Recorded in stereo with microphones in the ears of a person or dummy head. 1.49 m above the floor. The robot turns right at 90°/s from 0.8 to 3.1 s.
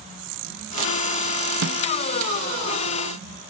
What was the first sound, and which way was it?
A snare drum, 60° right (ahead or behind).